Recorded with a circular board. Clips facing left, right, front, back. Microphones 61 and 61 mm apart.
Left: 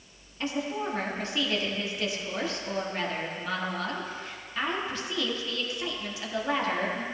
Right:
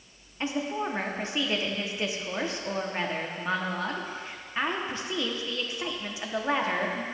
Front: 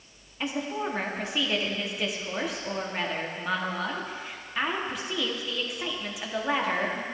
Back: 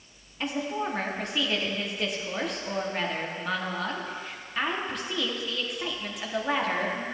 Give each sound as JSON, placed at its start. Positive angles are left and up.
{"t": 0.4, "sound": "a woman speaking", "azimuth_deg": -80, "distance_m": 0.9}